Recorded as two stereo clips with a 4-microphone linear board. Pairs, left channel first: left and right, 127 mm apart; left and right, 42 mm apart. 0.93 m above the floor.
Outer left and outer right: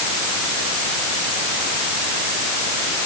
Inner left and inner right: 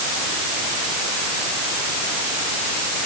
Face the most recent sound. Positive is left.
No sound to turn to.